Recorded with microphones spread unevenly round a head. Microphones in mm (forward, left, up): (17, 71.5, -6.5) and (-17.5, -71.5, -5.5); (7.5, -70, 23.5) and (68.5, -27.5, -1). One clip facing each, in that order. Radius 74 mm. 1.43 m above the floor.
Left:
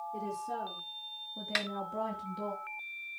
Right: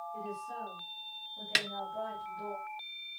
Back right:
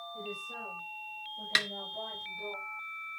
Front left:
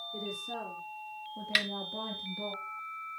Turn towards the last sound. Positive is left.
turn(degrees=-140)